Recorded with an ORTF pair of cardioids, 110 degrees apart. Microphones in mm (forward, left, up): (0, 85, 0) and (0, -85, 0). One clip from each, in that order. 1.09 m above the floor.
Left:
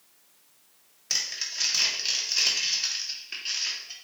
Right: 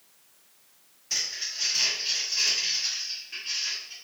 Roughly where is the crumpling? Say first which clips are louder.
Left 1 dB; ahead left.